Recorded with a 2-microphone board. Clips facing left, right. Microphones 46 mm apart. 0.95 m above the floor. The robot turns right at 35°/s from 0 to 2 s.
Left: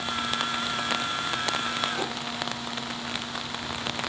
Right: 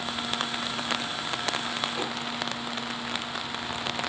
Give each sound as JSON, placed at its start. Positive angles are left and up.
{"t": 2.0, "sound": "tapping", "side_deg": -10, "distance_m": 5.0}